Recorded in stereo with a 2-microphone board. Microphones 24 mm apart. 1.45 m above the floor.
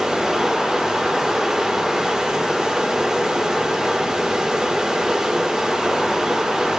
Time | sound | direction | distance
0.0 | running water | 25° right (ahead or behind) | 2.5 m